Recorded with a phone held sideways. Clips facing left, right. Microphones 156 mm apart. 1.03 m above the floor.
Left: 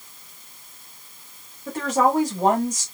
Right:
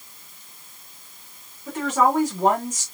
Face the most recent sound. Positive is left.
turn(degrees=35)  # may be behind; listen again after turning